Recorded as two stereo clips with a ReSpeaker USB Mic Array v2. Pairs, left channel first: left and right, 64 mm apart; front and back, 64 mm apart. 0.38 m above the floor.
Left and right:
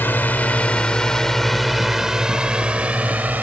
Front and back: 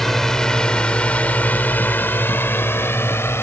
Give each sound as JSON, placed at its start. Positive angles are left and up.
{"t": 0.0, "sound": "a drone", "azimuth_deg": 80}